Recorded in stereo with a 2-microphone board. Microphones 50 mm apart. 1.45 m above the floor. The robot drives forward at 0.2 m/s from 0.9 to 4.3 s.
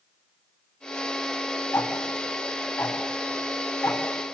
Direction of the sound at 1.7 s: 55° left (ahead or behind).